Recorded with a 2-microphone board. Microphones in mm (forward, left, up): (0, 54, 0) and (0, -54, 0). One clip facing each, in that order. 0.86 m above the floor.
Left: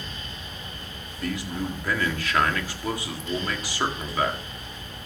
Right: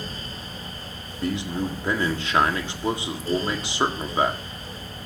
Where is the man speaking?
25° right (ahead or behind), 1.8 m.